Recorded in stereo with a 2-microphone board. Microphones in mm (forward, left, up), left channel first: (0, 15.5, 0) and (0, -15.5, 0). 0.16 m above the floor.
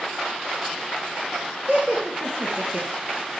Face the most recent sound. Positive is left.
turn(degrees=-55)  # may be behind; listen again after turning